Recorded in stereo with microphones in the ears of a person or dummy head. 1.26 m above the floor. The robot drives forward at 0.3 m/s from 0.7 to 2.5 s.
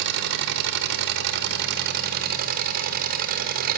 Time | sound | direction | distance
0.0 | an engine running | 60° right (ahead or behind) | 1.5 m